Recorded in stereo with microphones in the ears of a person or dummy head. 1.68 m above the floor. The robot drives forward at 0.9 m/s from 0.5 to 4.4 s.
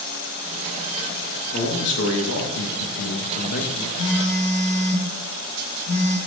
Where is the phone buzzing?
10° left (ahead or behind), 3.5 m.